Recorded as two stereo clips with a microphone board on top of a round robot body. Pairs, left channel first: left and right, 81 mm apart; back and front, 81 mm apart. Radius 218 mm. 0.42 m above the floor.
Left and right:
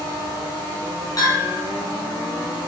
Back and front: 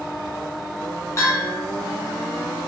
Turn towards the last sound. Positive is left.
turn(degrees=130)